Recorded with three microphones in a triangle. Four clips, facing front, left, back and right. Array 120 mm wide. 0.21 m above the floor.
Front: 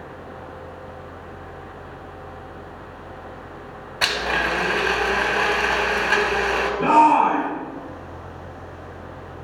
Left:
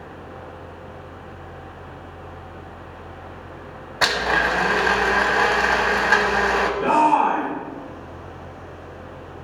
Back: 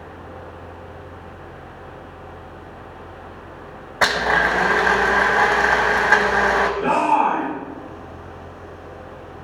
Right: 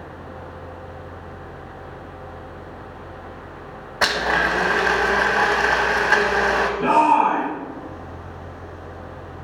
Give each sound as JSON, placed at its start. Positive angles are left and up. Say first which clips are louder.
{"t": 4.0, "sound": "a blender", "louder": "even, back 5 dB", "azimuth_deg": -175, "distance_m": 1.0}
{"t": 6.8, "sound": "a shout", "louder": "right 1 dB, front 6 dB", "azimuth_deg": -25, "distance_m": 4.5}